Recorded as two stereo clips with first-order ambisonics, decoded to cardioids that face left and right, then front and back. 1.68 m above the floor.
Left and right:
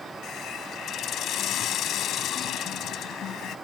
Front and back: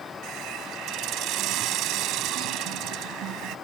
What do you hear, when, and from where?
0.2 s a hiss: 140° left